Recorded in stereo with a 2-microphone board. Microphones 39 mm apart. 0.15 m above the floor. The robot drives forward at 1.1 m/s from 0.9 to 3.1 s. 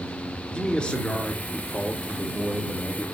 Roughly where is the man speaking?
Left.